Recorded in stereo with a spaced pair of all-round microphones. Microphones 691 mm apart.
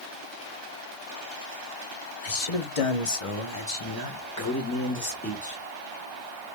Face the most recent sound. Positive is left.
turn(degrees=10)  # may be behind; listen again after turning